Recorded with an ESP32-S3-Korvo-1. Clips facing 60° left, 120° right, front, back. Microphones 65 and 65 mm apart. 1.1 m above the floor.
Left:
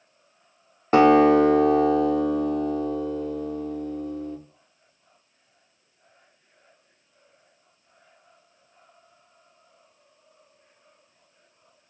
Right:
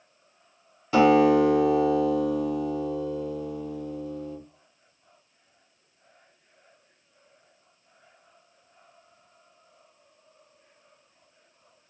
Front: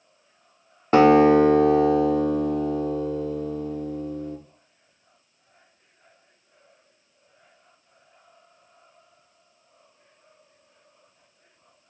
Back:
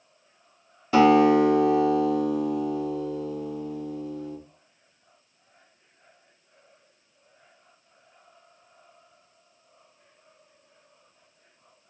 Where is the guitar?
30° left, 0.6 m.